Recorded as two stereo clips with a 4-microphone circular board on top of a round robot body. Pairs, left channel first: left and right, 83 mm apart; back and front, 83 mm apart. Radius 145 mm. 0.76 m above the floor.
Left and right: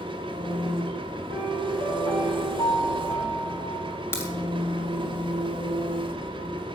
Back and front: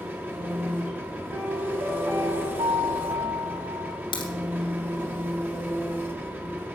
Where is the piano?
35° left, 4.5 m.